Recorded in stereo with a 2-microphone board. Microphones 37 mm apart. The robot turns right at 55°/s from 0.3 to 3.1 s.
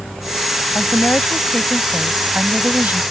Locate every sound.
0.8 s a woman speaking: 110° left; by 3.0 s 125° right